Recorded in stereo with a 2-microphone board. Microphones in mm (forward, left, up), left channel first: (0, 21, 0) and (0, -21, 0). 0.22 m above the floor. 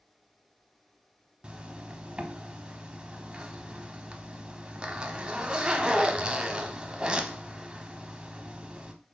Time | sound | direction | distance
1.4 | a zipper | 20° right (ahead or behind) | 0.6 m